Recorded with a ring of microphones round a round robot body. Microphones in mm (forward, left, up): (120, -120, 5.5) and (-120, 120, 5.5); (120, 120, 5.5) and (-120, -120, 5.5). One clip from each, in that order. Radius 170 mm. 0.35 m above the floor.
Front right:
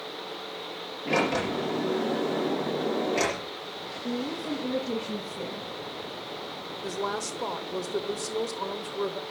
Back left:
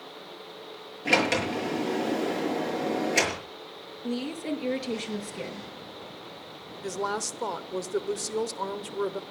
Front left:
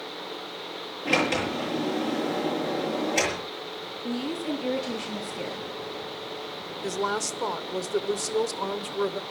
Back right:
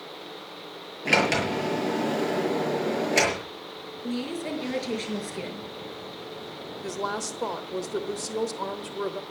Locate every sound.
1.1 s a sliding door: 160° left, 7 m
4.0 s a woman speaking: 160° left, 6.5 m
6.8 s a woman speaking: 100° left, 1.0 m